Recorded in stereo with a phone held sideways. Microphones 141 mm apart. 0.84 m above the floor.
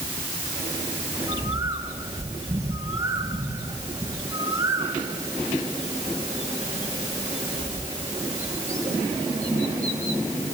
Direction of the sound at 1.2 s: 20° right (ahead or behind).